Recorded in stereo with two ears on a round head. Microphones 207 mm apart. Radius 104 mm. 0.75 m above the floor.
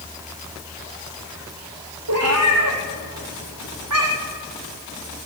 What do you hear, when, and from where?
2.1 s a cat meowing: 85° right, 4.5 m; by 4.4 s 75° right (ahead or behind), 5 m